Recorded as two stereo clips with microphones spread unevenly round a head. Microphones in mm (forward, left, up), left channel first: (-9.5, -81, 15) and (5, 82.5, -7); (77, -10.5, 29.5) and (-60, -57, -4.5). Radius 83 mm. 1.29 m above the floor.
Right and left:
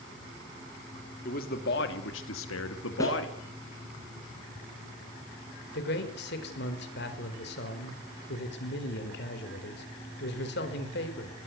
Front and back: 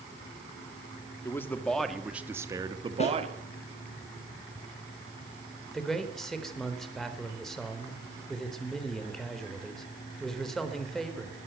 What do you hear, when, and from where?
1.2 s a man speaking: 55° right, 3 m; by 3.4 s 120° right, 3 m
3.0 s a snare drum: 25° right, 8 m
5.7 s a man speaking: 70° right, 4.5 m